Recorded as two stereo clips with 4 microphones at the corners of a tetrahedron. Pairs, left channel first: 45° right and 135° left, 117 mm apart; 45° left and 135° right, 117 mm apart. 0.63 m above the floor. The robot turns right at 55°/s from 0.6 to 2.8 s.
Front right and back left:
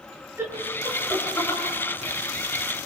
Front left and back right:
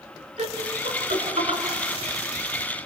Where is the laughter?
160° right, 7 m; by 1.6 s 105° right, 7 m.